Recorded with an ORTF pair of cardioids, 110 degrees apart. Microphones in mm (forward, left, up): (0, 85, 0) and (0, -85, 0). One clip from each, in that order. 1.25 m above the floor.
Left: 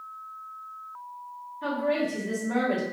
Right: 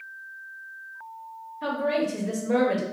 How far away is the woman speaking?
About 1.0 m.